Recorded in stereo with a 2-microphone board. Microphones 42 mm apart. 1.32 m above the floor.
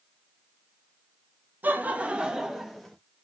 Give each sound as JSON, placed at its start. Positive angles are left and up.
{"t": 1.6, "sound": "laughter", "side_deg": -50, "distance_m": 0.8}